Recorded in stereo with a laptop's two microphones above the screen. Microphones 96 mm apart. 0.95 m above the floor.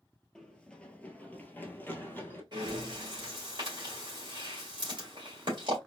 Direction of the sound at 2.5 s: 50° right (ahead or behind).